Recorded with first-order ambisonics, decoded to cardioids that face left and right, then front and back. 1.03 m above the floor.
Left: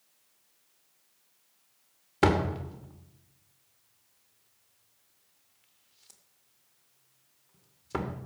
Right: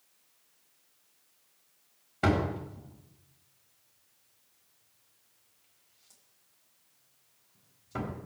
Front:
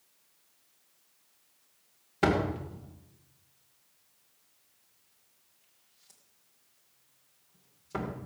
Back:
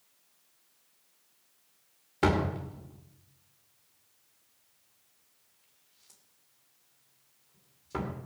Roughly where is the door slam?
Left.